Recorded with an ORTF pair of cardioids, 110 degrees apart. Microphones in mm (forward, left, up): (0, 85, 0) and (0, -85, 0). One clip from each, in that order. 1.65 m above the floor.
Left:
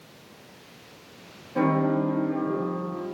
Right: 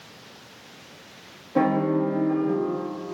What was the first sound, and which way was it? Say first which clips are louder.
A piano: right 2 dB; 45° right.